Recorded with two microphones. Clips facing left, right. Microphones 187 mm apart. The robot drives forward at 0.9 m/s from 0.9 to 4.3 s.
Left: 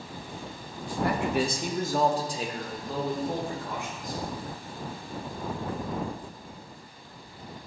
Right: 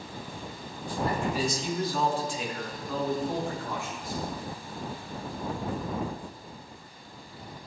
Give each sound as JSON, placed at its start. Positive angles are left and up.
{"t": 1.0, "sound": "a man speaking", "side_deg": 75, "distance_m": 0.9}